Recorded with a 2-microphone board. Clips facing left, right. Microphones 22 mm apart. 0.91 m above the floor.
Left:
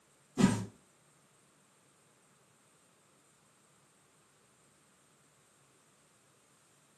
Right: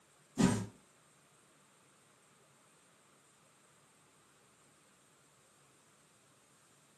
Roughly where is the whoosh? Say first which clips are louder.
Left 2 dB; left.